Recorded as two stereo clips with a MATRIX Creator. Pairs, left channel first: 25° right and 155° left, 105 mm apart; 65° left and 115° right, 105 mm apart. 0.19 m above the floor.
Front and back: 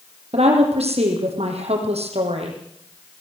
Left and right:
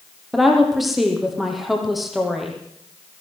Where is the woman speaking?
160° left, 6.5 m.